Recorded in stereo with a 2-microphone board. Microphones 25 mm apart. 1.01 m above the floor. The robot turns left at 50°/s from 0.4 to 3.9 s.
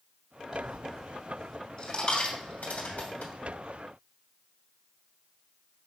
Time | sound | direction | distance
0.5 | a dropped coin | 35° right (ahead or behind) | 2.5 m